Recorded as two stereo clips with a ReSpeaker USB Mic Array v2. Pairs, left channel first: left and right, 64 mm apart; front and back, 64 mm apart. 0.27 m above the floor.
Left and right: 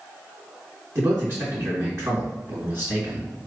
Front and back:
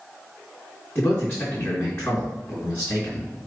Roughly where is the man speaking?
Ahead right.